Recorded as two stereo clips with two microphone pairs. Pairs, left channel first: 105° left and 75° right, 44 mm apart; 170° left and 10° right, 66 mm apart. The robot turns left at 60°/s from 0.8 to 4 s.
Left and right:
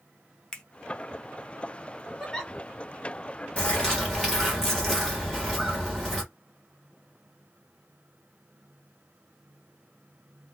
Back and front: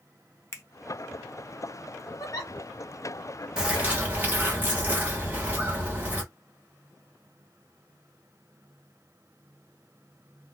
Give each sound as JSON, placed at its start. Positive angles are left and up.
{"t": 0.5, "sound": "a finger snap", "azimuth_deg": 170, "distance_m": 0.6}
{"t": 2.2, "sound": "a giggle", "azimuth_deg": -165, "distance_m": 0.8}
{"t": 3.6, "sound": "a bird", "azimuth_deg": 55, "distance_m": 1.1}